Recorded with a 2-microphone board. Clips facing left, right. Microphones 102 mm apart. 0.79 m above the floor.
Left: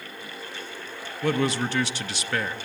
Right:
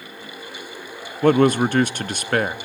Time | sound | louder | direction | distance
1.2 | a man speaking | right 9 dB | 50° right (ahead or behind) | 0.7 m